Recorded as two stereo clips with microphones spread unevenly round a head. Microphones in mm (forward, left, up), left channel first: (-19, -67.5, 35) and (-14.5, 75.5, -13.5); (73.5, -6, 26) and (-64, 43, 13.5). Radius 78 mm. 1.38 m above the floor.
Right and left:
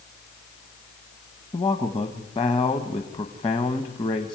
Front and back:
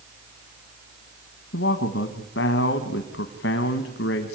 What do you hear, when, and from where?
1.5 s a man speaking: 30° right, 1.3 m